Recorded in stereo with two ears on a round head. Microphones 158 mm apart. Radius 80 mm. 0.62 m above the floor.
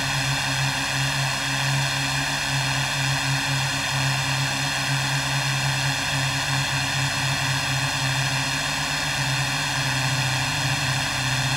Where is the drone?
Centre (ahead or behind).